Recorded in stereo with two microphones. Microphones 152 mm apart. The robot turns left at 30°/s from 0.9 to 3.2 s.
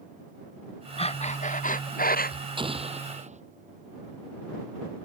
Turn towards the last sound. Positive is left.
turn(degrees=-50)  # may be behind; listen again after turning